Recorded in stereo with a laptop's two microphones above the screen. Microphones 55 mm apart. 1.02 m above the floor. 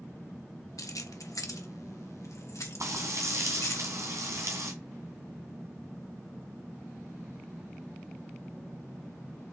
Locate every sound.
0.8 s keys jangling: 80° left, 0.8 m; by 3.8 s 60° left (ahead or behind), 2 m
2.8 s frying: 65° right (ahead or behind), 2 m